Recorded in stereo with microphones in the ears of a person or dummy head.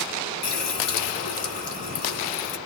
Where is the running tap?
50° left (ahead or behind), 1.4 m.